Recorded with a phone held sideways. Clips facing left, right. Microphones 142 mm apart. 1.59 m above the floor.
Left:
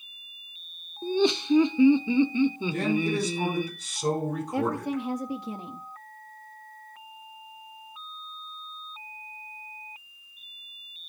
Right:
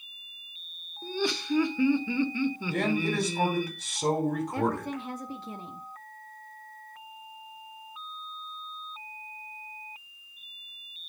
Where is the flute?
I don't hear a flute.